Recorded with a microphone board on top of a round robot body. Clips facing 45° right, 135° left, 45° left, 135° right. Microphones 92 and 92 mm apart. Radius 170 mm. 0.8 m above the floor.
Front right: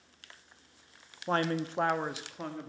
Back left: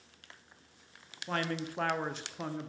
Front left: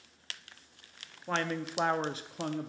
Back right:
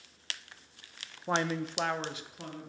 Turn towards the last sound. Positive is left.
turn(degrees=55)